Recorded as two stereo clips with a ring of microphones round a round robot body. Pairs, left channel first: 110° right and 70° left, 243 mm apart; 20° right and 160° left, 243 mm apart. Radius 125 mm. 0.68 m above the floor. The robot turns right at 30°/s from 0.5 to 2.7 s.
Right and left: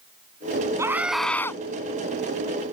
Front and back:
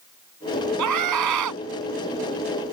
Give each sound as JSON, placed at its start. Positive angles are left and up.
{"t": 0.8, "sound": "a scream", "azimuth_deg": 145}